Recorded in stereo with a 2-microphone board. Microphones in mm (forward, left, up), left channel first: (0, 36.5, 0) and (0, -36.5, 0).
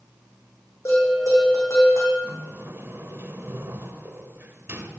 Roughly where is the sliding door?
Right.